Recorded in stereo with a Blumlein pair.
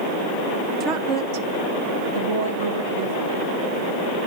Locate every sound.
0.8 s a woman speaking: 25° right, 0.8 m; by 3.5 s 60° right, 2.5 m